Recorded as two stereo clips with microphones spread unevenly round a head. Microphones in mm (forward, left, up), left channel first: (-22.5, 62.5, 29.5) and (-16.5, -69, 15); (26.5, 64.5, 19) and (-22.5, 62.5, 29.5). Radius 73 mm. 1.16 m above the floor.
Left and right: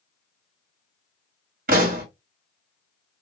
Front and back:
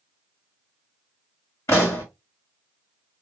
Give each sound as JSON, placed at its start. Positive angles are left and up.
{"t": 1.7, "sound": "a pop", "azimuth_deg": -55, "distance_m": 1.7}